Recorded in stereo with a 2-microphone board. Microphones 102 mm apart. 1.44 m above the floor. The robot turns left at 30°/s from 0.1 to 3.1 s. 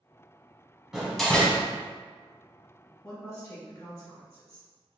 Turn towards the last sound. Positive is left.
turn(degrees=25)  # may be behind; listen again after turning